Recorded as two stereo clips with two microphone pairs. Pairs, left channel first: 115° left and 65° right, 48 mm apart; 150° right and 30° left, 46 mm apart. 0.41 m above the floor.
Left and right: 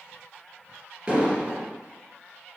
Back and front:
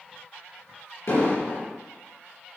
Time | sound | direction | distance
1.1 | an explosion | 135° right | 3.5 m